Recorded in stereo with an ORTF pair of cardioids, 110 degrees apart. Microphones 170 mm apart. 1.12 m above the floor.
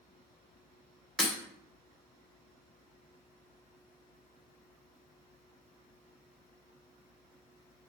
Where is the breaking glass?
5° left, 0.6 m.